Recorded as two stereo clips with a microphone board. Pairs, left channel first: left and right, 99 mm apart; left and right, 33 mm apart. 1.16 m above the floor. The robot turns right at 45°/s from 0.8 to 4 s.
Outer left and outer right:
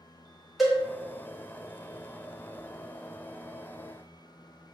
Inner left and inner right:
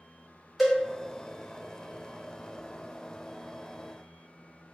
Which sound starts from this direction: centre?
A cowbell, at 0.6 s.